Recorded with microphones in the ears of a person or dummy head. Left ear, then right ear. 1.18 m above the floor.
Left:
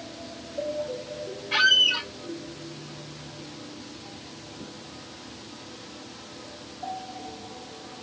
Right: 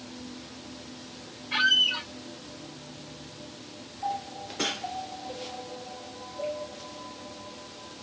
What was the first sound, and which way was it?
A squeak, 10° left (ahead or behind).